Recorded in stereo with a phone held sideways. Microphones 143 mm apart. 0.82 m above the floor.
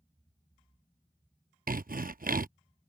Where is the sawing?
80° right.